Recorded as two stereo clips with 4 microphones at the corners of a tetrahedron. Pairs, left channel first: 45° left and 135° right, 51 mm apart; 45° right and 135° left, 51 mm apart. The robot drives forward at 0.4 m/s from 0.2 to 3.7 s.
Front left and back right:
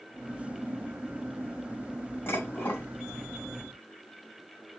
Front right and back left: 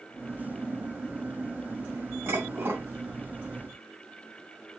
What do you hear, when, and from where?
2.3 s dishes clattering: 95° left, 2.5 m; by 2.9 s 100° left, 3 m